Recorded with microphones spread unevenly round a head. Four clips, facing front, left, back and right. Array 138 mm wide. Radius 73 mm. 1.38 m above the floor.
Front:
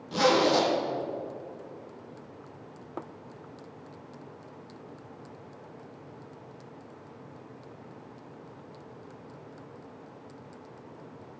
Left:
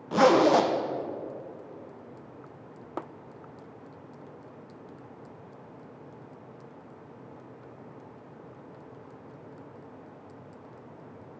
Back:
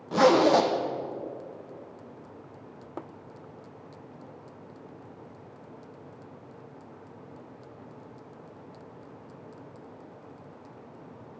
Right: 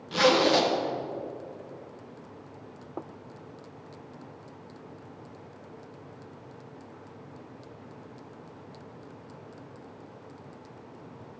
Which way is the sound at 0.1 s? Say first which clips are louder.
Left 3 dB, back 4 dB; 125° left.